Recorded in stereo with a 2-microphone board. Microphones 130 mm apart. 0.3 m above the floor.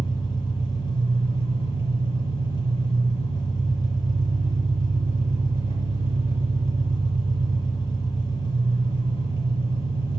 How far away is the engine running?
About 3 m.